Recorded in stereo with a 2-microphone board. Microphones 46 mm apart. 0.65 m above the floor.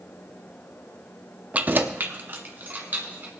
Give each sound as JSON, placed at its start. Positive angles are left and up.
{"t": 1.5, "sound": "keys jangling", "side_deg": -30, "distance_m": 0.5}